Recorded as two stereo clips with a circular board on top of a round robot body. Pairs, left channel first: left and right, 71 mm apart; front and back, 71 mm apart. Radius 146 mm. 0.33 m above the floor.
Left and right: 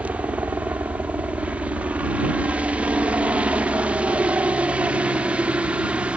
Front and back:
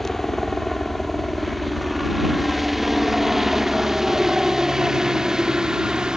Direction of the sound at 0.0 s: 80° right.